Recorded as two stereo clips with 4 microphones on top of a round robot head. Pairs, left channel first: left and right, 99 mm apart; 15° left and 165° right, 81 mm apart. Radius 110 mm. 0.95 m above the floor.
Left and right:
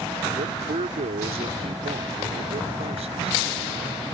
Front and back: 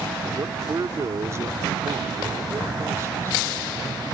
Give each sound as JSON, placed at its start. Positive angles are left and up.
{"t": 0.3, "sound": "a man speaking", "azimuth_deg": -110}